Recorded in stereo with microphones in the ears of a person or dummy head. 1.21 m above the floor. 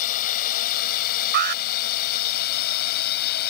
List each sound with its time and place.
0.0 s a drone: 45° left (ahead or behind); by 3.5 s 55° left (ahead or behind)
1.3 s an alarm: 55° right (ahead or behind)